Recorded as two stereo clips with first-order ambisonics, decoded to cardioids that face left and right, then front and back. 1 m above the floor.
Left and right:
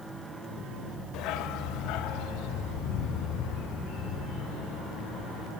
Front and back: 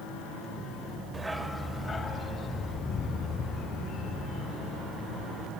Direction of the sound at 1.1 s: 105° left.